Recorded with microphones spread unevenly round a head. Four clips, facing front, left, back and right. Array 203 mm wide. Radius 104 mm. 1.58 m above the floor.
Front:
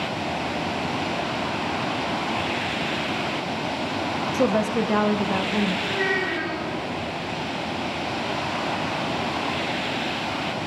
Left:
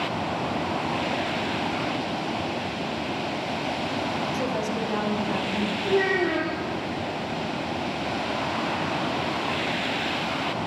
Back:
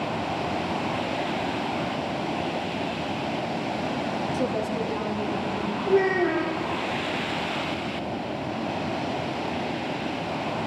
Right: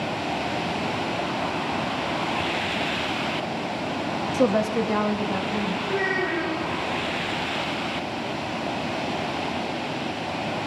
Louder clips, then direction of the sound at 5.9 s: Left 6 dB, back 4 dB; 145° left.